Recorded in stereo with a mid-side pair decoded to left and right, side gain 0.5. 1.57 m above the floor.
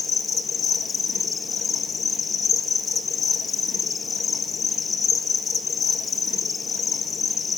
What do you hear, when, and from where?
0.0 s an insect: 40° left, 1.2 m